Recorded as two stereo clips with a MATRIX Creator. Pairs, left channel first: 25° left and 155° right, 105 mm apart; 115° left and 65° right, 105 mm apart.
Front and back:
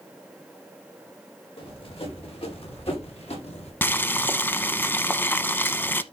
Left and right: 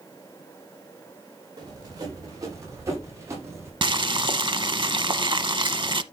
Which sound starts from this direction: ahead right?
Boiling, at 3.8 s.